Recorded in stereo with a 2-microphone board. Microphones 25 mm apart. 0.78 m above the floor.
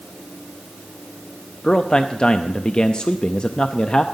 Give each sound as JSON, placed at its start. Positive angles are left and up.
{"t": 1.6, "sound": "a man speaking", "side_deg": 35, "distance_m": 0.6}